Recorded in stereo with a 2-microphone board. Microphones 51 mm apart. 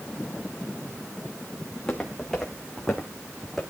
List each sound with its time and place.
1.7 s footsteps: 10° left (ahead or behind), 5.5 m; by 3.6 s 5° left (ahead or behind), 3.5 m